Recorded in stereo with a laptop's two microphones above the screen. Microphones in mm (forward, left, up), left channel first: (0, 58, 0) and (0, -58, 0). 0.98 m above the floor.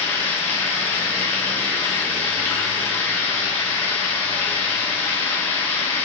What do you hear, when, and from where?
0.0 s running water: 20° left (ahead or behind), 1.1 m